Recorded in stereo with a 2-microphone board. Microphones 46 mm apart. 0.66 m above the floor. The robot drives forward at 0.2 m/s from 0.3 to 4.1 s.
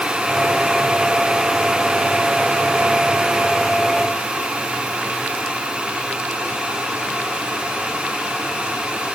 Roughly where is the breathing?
I don't hear breathing.